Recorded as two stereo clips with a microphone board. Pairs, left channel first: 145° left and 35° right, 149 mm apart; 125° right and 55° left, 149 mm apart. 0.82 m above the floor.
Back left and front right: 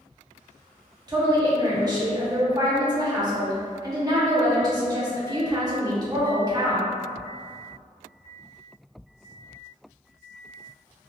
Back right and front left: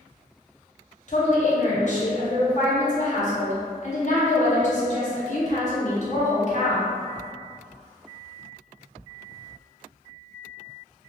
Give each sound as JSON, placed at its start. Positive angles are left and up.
{"t": 1.1, "sound": "a woman speaking", "azimuth_deg": -95, "distance_m": 1.0}